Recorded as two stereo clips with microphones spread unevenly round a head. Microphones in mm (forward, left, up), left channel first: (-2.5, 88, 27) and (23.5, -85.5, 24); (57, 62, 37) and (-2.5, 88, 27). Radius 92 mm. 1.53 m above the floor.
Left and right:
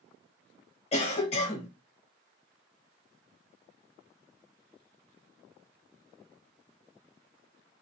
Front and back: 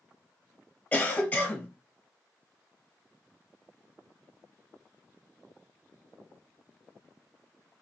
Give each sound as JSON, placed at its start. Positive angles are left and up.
{"t": 0.9, "sound": "a cough", "azimuth_deg": 40, "distance_m": 1.2}